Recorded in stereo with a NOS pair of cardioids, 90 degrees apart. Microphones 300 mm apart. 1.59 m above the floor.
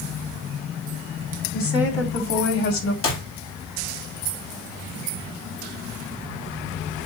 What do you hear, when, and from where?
1.5 s a woman speaking: 45° left, 4 m; by 2.9 s 70° left, 2.5 m
3.0 s a clap: 45° left, 3.5 m